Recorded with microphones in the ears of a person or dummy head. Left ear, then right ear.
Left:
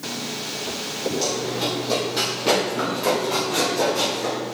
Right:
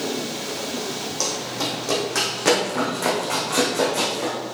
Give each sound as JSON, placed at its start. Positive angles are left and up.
{"t": 1.2, "sound": "running footsteps", "side_deg": -55, "distance_m": 2.5}